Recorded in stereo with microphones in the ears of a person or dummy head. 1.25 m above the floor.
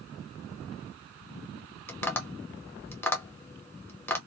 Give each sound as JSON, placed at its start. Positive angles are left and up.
{"t": 1.9, "sound": "tapping", "side_deg": 5, "distance_m": 0.6}